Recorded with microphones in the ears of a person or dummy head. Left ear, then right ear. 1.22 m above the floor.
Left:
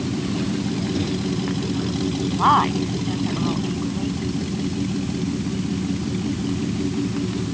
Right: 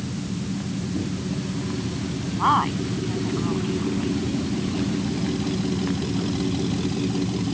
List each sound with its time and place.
0.9 s a microwave: 80° left
2.3 s a woman speaking: 15° left (ahead or behind)